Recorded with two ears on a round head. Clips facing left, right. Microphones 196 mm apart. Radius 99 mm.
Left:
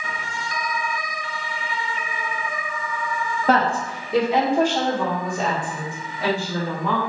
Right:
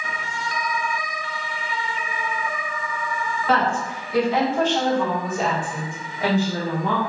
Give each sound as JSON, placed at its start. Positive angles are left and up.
{"t": 3.5, "sound": "a woman speaking", "side_deg": 40, "distance_m": 1.2}